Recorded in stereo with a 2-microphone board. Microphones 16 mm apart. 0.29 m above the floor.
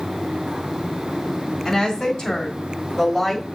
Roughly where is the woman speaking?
Left.